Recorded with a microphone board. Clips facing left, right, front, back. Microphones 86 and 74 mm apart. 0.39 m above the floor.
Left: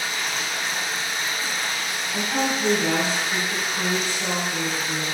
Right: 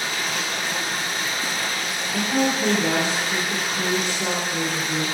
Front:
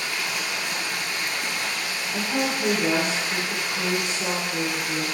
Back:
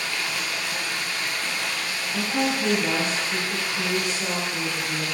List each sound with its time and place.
0.0 s running water: 70° right, 0.8 m
2.1 s a woman speaking: 45° right, 1.0 m